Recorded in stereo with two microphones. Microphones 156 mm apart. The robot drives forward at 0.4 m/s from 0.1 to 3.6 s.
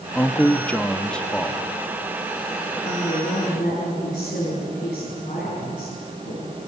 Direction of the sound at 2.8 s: 50° left (ahead or behind).